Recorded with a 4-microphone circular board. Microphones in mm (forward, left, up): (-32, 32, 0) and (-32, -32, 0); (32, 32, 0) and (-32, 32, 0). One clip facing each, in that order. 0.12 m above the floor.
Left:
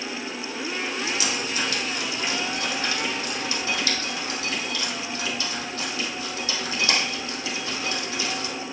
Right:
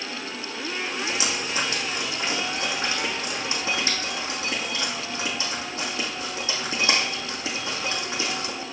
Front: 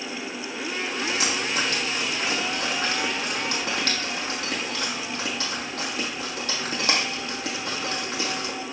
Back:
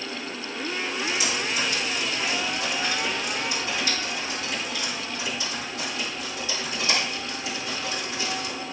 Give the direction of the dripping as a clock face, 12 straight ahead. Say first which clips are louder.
Even, front 2 dB; 1 o'clock.